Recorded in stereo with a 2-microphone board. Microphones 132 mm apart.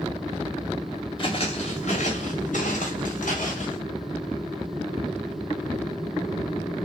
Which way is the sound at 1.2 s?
40° left (ahead or behind).